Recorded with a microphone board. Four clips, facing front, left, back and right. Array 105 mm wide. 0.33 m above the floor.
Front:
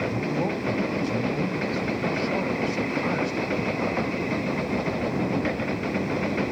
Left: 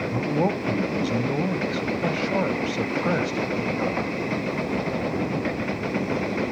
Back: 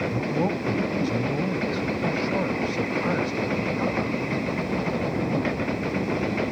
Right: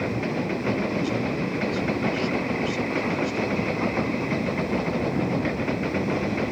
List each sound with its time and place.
0.1 s a man speaking: 105° left, 1.7 m